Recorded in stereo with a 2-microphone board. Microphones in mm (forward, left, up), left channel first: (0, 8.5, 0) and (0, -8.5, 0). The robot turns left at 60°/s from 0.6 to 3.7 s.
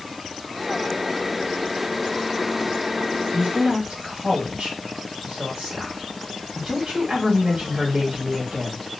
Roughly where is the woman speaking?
Right.